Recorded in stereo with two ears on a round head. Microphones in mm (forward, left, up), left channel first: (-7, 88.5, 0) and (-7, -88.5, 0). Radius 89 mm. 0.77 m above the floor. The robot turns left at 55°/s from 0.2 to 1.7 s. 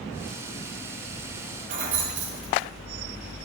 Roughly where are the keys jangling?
Right.